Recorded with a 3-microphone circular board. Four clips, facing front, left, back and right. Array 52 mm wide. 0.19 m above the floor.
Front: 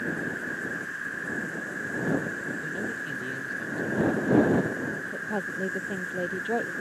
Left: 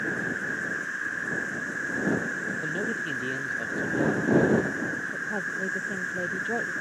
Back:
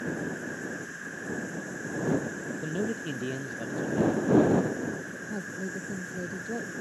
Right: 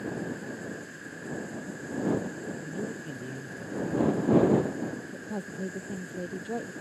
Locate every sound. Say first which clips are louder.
0.0 s an insect: left 6 dB, front 3 dB; 70° left
2.6 s a man speaking: left 7 dB, even; 130° left
5.1 s a woman speaking: left 7 dB, front 5 dB; 10° left